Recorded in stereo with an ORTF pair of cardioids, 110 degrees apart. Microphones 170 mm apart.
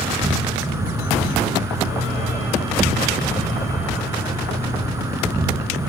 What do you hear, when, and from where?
0.0 s an insect: 15° right, 5.5 m